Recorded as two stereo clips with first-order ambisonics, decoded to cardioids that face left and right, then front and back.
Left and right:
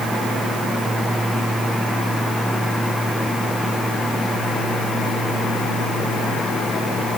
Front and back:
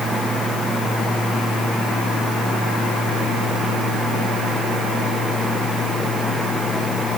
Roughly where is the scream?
No scream in this recording.